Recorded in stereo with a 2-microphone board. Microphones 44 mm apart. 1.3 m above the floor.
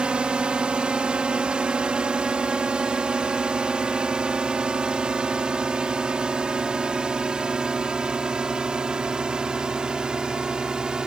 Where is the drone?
20° right (ahead or behind); by 11.1 s 15° right (ahead or behind).